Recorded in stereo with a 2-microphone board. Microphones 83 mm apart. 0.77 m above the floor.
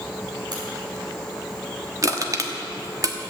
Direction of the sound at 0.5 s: 60° right (ahead or behind).